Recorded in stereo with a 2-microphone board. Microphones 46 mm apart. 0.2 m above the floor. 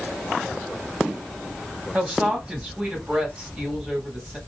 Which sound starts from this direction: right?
A woman speaking, at 1.9 s.